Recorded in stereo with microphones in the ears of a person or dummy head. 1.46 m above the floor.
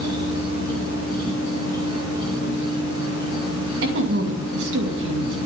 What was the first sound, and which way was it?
An insect, 25° right (ahead or behind).